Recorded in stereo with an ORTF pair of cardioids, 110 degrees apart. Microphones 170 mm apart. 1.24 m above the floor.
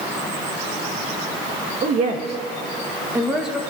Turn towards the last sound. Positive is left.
turn(degrees=0)